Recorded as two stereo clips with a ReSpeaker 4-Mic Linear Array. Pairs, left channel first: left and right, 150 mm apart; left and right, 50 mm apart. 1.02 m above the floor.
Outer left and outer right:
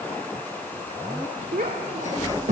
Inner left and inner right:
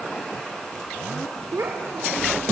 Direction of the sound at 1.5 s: 75° right (ahead or behind).